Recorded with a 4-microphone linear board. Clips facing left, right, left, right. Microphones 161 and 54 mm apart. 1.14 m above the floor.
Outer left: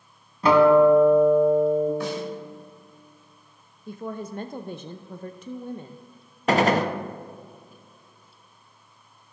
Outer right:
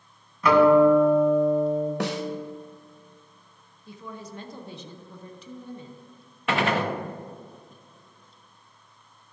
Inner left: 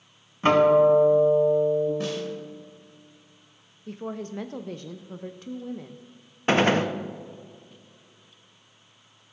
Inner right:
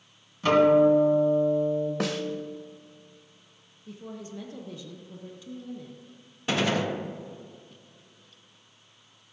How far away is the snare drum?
About 0.9 m.